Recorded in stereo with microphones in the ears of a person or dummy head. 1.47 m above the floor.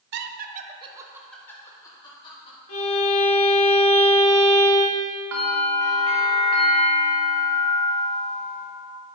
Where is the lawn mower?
I don't hear a lawn mower.